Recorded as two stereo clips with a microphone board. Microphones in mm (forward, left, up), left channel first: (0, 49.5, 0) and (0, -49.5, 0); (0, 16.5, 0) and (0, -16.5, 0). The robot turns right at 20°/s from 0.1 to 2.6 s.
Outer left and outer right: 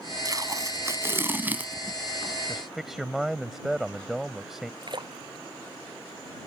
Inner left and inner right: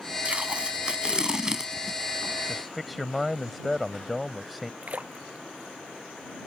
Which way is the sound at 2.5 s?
Centre (ahead or behind).